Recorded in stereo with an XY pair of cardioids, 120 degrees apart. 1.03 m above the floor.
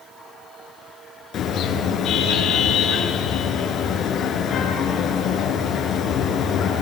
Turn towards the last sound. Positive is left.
turn(degrees=60)